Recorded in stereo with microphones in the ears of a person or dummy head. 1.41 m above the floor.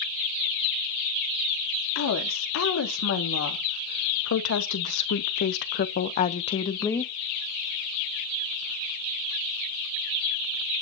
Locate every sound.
1.9 s a woman speaking: 85° left, 3 m; by 7.1 s 5° left (ahead or behind), 1.0 m